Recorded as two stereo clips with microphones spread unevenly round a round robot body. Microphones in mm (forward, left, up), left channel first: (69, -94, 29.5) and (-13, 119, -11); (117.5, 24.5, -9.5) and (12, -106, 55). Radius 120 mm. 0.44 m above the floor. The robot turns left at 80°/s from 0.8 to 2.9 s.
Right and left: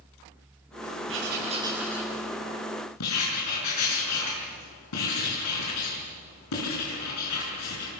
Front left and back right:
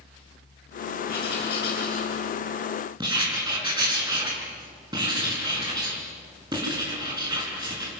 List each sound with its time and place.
1.1 s writing: 85° left, 7.5 m; by 7.9 s 60° right, 7.5 m